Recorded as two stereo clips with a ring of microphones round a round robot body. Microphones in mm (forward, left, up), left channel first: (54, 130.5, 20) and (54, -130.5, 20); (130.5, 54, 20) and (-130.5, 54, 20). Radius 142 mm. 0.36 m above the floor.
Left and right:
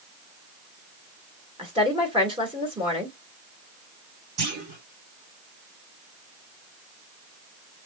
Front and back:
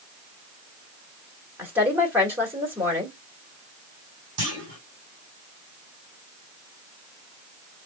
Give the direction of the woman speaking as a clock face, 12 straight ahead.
4 o'clock.